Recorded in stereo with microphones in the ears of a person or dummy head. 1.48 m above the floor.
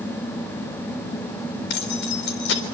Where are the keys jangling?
70° left (ahead or behind), 3.5 m.